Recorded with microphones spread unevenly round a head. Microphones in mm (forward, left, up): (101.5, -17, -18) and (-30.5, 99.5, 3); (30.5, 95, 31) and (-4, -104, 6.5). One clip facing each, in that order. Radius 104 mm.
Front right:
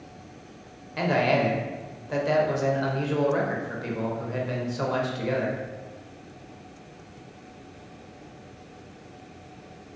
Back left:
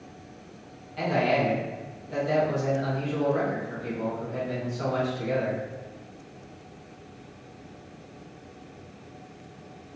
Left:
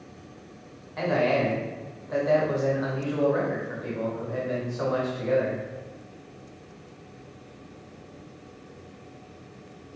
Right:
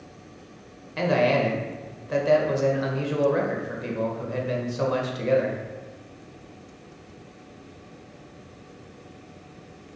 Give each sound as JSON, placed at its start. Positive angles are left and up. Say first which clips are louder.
{"t": 1.0, "sound": "a man speaking", "louder": "front right 1 dB, right 2 dB", "azimuth_deg": -60, "distance_m": 0.9}